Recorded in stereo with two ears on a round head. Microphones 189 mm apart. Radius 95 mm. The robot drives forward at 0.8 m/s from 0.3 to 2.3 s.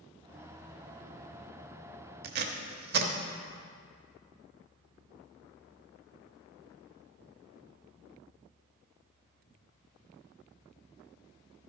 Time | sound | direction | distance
2.2 | tape being pulled | 50° right (ahead or behind) | 0.9 m